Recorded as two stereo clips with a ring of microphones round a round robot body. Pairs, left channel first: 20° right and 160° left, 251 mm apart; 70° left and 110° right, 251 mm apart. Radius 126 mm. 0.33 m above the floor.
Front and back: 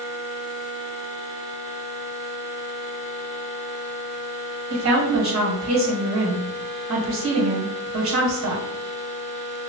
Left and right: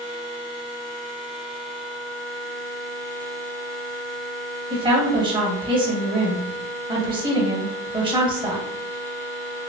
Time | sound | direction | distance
4.7 | a woman speaking | straight behind | 1.5 m